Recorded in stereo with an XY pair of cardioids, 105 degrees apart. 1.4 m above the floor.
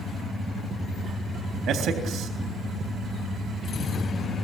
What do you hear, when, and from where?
1.7 s a man speaking: 60° right, 3.5 m